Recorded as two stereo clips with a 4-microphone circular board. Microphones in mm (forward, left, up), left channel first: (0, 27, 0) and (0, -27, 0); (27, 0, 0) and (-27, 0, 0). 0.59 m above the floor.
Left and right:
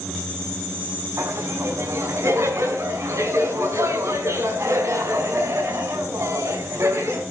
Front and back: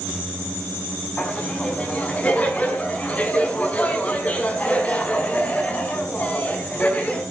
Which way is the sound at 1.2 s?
65° right.